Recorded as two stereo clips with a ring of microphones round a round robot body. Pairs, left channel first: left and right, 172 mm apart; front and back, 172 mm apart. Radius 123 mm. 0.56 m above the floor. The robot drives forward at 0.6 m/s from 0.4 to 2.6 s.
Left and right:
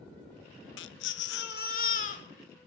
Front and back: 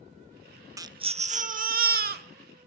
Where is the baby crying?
105° left, 0.6 m; by 2.2 s 150° left, 1.2 m.